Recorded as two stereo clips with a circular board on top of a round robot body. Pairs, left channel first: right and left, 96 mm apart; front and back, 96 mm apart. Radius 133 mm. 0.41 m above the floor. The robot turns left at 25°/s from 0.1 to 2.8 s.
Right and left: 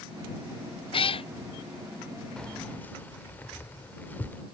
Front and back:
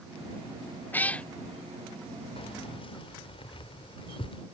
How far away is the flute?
No flute in this recording.